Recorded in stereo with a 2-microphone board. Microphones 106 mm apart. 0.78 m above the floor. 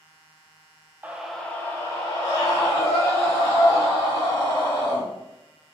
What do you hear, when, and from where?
1.0 s a scream: 15° right (ahead or behind), 0.5 m; by 5.0 s 40° left (ahead or behind), 3 m